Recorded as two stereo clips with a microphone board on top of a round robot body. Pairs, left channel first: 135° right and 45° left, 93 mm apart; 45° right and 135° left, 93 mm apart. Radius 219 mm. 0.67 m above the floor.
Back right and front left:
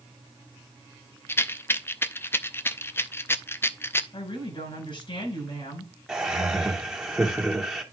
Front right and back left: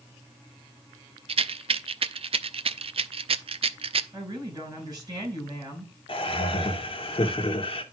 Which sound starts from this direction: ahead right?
Laughter, at 6.1 s.